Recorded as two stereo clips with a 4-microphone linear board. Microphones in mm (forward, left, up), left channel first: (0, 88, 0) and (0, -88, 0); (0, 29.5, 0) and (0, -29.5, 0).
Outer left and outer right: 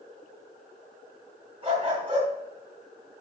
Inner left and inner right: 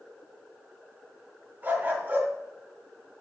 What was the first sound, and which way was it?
A dog barking, 30° right (ahead or behind).